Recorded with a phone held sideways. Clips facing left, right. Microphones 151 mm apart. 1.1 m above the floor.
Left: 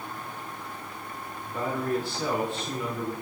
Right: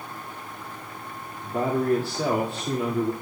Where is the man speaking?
75° right (ahead or behind), 2 m.